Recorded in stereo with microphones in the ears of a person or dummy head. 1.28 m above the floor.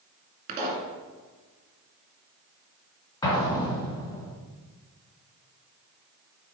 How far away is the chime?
I don't hear a chime.